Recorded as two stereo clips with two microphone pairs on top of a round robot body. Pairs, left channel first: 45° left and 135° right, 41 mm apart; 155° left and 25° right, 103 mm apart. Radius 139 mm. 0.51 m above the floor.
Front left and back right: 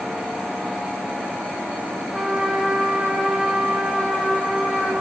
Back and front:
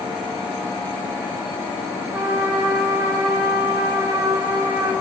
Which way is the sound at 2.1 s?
75° right.